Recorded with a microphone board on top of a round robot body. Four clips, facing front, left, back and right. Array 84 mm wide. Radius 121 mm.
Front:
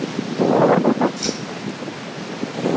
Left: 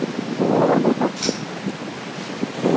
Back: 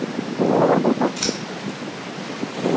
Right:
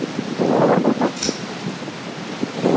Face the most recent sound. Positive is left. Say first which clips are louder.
# even, even
turn(degrees=175)